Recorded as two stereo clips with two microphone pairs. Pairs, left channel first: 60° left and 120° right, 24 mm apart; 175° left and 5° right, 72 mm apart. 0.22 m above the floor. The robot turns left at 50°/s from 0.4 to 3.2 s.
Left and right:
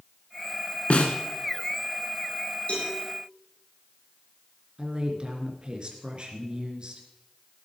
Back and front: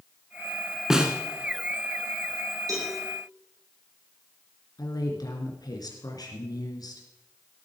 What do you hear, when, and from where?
0.9 s a snare drum: 75° left, 1.8 m; by 1.1 s 65° left, 1.8 m
2.7 s a cowbell: 25° left, 7 m; by 2.9 s 15° left, 7 m
4.8 s a woman speaking: 165° right, 3 m